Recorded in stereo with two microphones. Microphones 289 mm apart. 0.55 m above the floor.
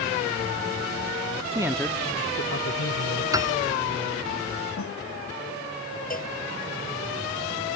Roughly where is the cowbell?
Left.